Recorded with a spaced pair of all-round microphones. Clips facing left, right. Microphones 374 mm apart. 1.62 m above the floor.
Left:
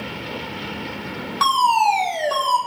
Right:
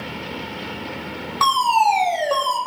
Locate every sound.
1.4 s a fire alarm: 25° left (ahead or behind), 8 m